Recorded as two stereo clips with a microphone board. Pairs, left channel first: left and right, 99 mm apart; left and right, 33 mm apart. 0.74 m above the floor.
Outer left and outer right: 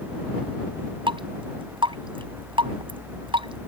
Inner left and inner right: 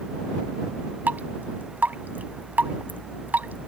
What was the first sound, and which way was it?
Dripping, 60° right (ahead or behind).